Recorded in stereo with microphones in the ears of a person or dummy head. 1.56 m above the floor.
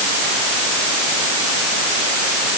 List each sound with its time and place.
Only background noise.